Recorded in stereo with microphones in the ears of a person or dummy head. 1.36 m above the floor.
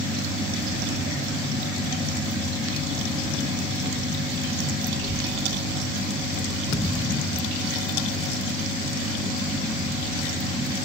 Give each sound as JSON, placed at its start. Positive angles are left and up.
{"t": 4.9, "sound": "a child speaking", "side_deg": -20, "distance_m": 0.6}
{"t": 6.7, "sound": "a thud", "side_deg": 15, "distance_m": 0.7}